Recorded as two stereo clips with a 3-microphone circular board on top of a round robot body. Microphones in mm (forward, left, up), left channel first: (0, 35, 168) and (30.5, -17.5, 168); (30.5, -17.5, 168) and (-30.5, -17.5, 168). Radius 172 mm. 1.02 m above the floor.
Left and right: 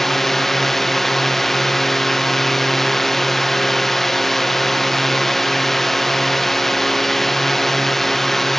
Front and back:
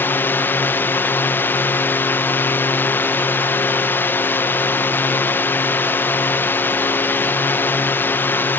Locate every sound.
0.0 s a drone: 35° left